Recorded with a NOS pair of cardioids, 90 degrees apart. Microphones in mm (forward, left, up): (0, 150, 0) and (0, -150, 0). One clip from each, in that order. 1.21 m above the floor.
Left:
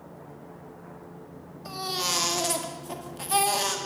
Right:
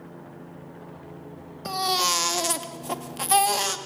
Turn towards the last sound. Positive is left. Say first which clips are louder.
# right 6 dB
turn(degrees=-50)